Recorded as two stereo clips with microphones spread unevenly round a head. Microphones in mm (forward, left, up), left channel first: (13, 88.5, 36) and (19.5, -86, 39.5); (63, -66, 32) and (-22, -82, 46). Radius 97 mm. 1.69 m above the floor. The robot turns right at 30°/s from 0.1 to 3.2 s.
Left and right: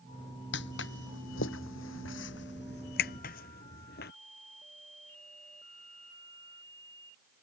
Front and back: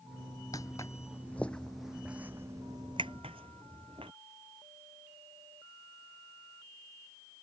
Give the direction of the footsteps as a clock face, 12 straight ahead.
9 o'clock.